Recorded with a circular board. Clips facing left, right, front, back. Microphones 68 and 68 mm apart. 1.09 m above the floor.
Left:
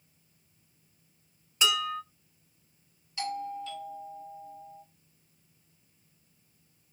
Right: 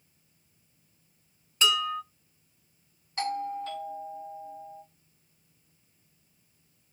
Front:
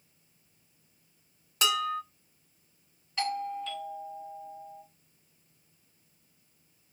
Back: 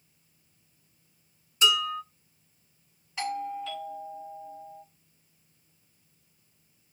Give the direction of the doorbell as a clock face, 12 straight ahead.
3 o'clock.